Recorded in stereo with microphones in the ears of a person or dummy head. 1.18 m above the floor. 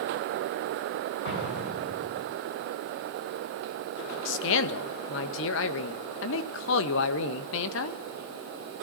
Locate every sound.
1.2 s an explosion: 60° left (ahead or behind), 8 m
4.2 s a man speaking: 65° left (ahead or behind), 1.6 m